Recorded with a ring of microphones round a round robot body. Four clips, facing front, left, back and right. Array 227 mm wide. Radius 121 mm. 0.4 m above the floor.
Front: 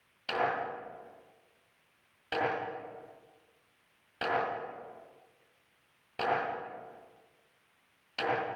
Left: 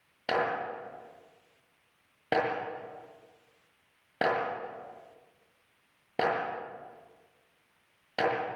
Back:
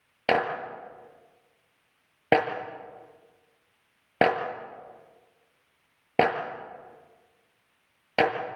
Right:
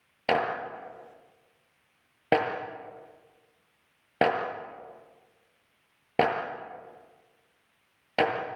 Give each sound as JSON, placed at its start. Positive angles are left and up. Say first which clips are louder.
{"t": 0.3, "sound": "a clap", "louder": "right 3 dB, back 6 dB", "azimuth_deg": -160, "distance_m": 6.5}